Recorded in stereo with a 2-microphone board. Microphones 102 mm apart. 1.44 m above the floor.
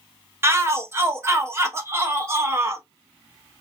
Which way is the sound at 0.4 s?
25° right (ahead or behind).